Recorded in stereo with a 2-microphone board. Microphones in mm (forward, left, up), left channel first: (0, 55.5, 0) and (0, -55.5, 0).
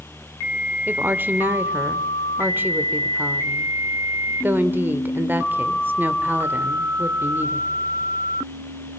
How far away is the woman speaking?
About 1.4 m.